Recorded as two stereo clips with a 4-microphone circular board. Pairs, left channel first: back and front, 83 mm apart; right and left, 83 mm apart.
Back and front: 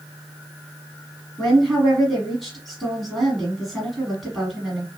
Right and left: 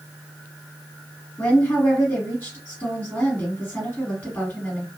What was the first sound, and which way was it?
A woman speaking, 100° right.